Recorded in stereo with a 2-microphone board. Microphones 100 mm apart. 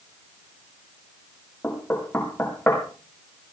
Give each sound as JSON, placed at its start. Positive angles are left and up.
{"t": 1.6, "sound": "knocking", "side_deg": 20, "distance_m": 4.5}